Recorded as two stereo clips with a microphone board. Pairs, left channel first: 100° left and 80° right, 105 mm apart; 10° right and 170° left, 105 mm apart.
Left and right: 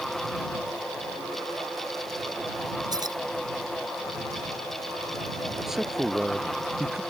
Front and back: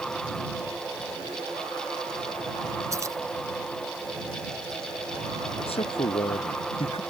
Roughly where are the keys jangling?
Behind right.